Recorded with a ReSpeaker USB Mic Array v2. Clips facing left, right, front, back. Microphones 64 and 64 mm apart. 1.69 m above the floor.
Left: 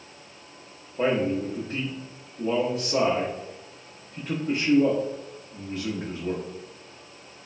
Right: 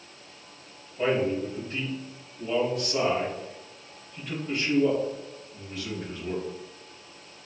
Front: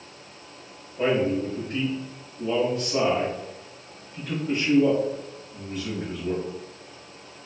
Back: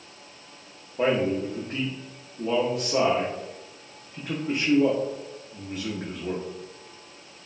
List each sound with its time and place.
1.0 s a man speaking: 125° left, 0.7 m